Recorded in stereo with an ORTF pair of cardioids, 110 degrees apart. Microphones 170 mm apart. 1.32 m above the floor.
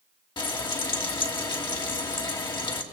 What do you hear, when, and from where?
0.4 s frying: 25° left, 2.5 m